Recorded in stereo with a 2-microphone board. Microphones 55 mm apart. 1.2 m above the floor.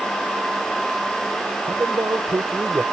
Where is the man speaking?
70° right (ahead or behind); by 2.8 s 55° right (ahead or behind).